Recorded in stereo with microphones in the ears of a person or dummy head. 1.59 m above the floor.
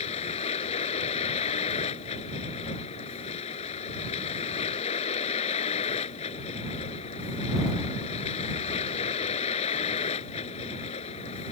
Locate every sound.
0.0 s a vehicle: 35° left (ahead or behind)